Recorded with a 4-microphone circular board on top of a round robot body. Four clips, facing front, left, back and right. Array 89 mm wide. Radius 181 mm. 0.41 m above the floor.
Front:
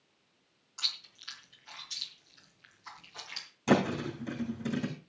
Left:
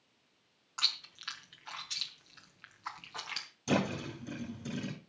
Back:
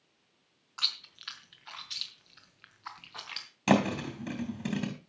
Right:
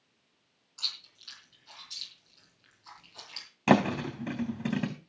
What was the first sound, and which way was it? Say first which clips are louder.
Chewing: left 7 dB, back 4 dB; 120° left.